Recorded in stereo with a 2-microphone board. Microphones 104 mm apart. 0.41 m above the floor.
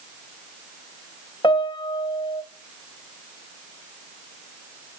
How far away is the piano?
About 0.5 m.